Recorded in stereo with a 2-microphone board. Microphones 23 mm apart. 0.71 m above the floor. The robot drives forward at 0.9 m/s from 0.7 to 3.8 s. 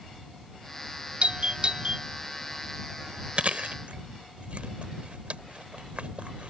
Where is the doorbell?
55° right (ahead or behind); by 2.0 s 45° right (ahead or behind).